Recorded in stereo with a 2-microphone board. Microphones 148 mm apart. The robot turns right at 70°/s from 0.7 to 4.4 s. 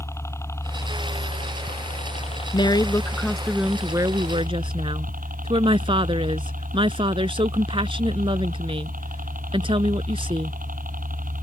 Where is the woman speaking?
120° left; by 10.6 s 110° right.